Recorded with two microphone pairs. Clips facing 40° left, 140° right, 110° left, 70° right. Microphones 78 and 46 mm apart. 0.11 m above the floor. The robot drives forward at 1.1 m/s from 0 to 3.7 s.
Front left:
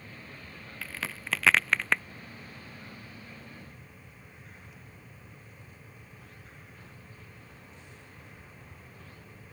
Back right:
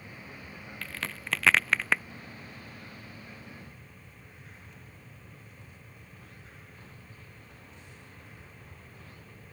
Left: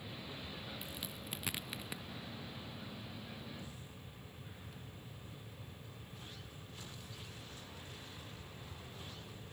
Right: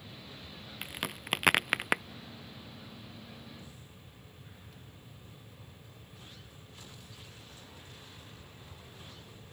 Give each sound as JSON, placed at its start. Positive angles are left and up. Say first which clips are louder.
{"t": 0.8, "sound": "a crack", "louder": "even, right 7 dB", "azimuth_deg": -45}